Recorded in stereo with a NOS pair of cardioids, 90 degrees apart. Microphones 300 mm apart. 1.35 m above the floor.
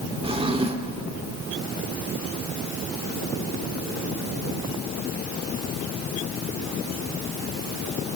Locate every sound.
0.2 s a drawer: 15° right, 2 m